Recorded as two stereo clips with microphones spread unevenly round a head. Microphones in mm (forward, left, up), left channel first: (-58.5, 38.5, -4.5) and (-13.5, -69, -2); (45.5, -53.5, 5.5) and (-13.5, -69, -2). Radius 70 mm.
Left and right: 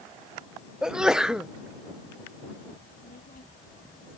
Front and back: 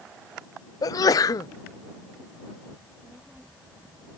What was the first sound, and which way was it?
A sneeze, 20° left.